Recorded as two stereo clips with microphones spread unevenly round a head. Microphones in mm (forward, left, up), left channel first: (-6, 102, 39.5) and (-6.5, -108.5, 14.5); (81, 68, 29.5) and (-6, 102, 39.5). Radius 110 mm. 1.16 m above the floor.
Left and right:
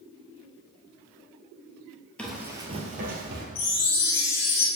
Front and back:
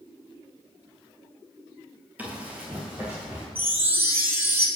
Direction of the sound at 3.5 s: 90° left.